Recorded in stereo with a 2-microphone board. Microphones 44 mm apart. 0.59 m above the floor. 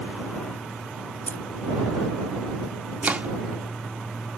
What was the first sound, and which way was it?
Keys jangling, 45° left (ahead or behind).